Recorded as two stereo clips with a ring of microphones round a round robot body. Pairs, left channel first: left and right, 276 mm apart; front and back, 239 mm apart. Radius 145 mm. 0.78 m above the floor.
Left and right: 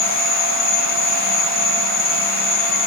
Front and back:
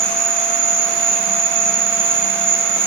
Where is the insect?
105° left, 1.8 m.